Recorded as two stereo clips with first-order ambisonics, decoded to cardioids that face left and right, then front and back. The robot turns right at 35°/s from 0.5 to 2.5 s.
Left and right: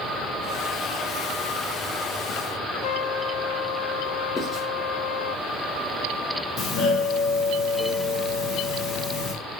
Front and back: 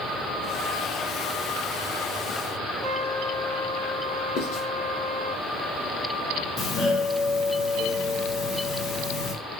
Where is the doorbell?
45° left, 1.2 m.